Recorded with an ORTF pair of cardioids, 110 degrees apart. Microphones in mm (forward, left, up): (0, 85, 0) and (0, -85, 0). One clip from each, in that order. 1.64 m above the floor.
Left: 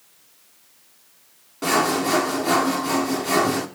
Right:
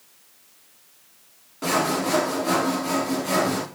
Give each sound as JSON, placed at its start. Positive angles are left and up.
{"t": 1.6, "sound": "sawing", "azimuth_deg": 15, "distance_m": 1.2}